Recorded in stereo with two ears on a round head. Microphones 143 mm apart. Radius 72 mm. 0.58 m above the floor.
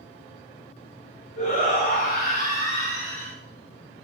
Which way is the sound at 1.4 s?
55° left (ahead or behind).